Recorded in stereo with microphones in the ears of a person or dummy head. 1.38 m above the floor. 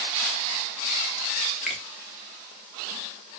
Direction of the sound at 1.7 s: 5° right (ahead or behind).